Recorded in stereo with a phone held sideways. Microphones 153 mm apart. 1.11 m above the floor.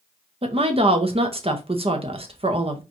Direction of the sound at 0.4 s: 40° right (ahead or behind).